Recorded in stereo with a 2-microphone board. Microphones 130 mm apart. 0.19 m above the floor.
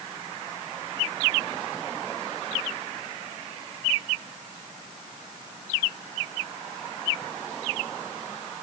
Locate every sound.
Only background noise.